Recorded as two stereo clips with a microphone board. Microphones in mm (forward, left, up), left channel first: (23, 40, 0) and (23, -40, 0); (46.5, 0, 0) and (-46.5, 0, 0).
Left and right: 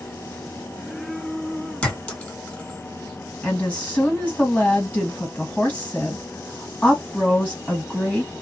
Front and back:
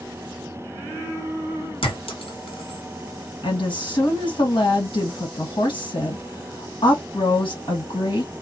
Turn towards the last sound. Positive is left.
turn(degrees=20)